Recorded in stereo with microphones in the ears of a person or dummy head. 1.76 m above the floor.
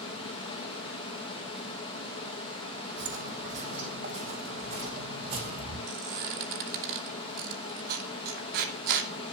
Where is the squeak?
50° right (ahead or behind), 2.5 m.